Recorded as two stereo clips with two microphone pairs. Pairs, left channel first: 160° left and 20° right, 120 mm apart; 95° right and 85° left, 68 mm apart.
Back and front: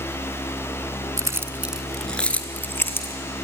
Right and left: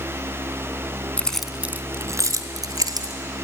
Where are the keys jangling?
45° right, 0.8 m; by 3.1 s 90° left, 2 m.